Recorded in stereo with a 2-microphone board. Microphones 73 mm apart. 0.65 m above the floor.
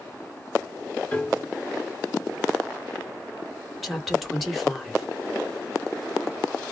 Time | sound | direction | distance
1.1 | a piano | 20° left (ahead or behind) | 1.5 m
3.8 | a woman speaking | centre (ahead or behind) | 1.3 m